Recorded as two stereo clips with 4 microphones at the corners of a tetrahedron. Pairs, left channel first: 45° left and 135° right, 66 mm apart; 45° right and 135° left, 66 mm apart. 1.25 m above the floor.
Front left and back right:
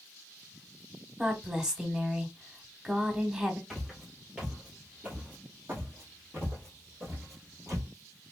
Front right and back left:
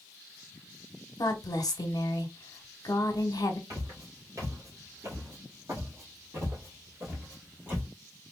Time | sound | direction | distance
1.2 | a woman speaking | 60° right | 1.0 m
3.7 | footsteps | 135° left | 2.0 m